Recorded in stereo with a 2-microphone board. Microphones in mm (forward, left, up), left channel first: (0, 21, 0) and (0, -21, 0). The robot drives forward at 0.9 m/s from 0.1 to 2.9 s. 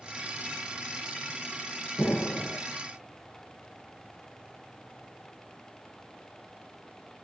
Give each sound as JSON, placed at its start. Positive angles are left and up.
{"t": 2.0, "sound": "an explosion", "side_deg": 45, "distance_m": 2.0}